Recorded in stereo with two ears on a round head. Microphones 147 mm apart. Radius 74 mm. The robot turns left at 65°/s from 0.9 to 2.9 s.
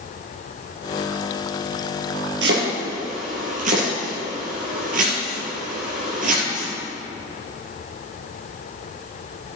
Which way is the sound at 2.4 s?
85° right.